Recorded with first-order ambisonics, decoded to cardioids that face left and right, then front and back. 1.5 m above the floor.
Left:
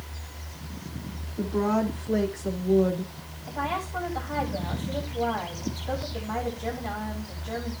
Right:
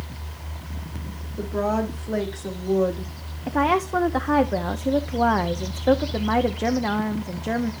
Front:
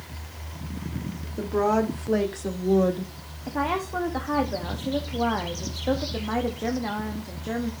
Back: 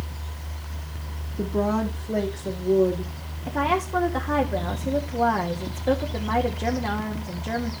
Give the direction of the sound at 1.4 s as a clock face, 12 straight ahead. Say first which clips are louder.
Right 2 dB, front 2 dB; 1 o'clock.